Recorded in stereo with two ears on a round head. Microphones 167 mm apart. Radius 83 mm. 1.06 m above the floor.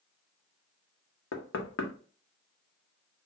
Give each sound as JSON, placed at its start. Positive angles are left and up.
{"t": 1.3, "sound": "knocking", "side_deg": 75, "distance_m": 0.9}